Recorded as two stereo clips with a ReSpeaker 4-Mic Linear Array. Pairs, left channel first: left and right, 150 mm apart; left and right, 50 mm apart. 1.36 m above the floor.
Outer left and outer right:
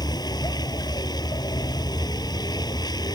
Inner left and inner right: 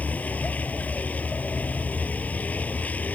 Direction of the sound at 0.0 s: 25° left (ahead or behind).